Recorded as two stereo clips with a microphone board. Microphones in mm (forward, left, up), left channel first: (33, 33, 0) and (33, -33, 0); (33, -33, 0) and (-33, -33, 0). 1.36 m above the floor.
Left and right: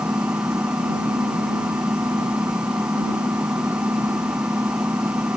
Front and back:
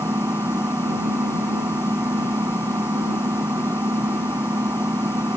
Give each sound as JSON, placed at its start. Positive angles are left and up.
{"t": 0.0, "sound": "an engine running", "azimuth_deg": -145}